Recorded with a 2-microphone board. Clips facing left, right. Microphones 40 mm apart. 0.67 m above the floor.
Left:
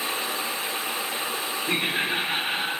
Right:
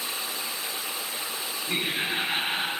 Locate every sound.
1.7 s laughter: 55° left (ahead or behind), 1.7 m; by 2.7 s 10° right (ahead or behind), 1.1 m